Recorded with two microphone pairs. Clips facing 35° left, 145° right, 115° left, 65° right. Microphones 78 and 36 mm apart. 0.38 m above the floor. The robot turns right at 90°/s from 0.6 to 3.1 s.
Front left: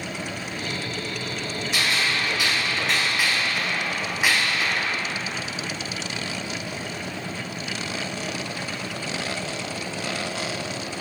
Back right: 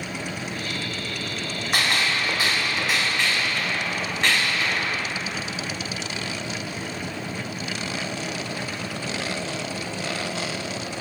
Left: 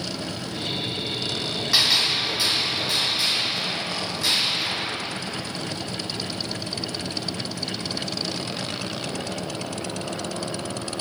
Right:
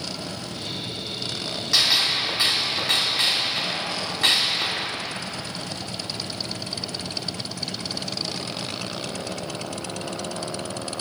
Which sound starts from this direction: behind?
A gunshot, at 1.7 s.